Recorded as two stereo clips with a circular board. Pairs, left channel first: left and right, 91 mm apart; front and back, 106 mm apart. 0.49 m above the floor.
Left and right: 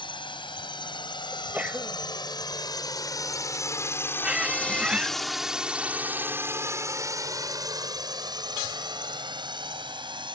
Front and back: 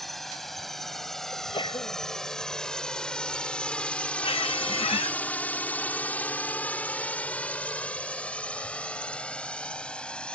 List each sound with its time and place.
0.0 s a drone: 90° left; by 10.4 s 80° right
1.3 s a sneeze: 20° right
4.2 s a squeak: 15° right